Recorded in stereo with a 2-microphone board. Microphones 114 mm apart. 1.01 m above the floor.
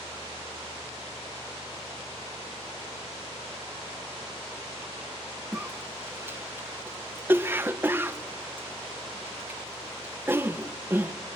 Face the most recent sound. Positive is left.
turn(degrees=-20)  # may be behind; listen again after turning